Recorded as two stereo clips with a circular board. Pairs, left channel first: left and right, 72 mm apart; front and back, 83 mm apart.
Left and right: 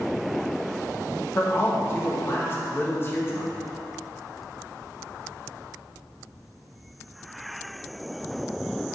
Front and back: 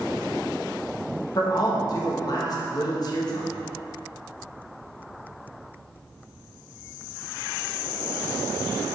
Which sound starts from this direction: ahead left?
A man speaking, at 1.4 s.